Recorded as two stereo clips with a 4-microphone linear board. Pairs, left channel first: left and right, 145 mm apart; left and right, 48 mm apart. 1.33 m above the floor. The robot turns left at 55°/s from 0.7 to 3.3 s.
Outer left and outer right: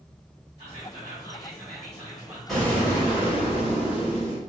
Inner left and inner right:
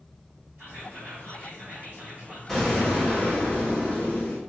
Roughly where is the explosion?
Behind.